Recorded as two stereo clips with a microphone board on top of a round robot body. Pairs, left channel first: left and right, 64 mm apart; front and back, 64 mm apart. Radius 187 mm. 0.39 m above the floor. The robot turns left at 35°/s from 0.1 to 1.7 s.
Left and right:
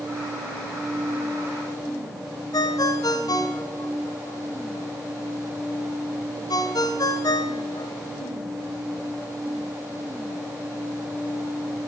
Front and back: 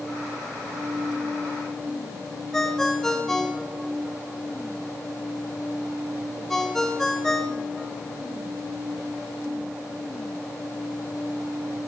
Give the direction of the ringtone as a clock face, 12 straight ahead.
9 o'clock.